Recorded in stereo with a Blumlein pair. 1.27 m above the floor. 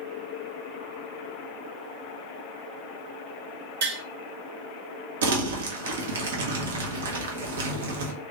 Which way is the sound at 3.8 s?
60° right.